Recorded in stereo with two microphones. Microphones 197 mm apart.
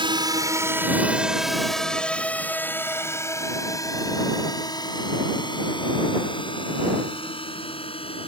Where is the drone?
25° right (ahead or behind); by 8.3 s 30° left (ahead or behind).